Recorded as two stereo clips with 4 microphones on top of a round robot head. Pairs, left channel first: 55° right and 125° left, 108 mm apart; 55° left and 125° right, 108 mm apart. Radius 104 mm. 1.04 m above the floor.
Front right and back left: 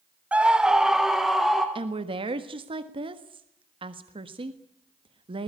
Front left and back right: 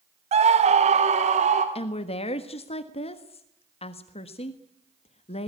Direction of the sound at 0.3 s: 155° right.